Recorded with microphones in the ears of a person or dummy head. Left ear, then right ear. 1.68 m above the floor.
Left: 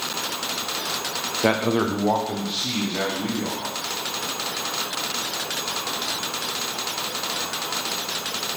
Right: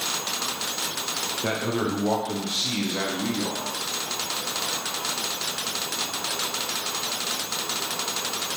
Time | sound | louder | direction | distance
1.4 | a man speaking | left 8 dB | 30° left (ahead or behind) | 0.5 m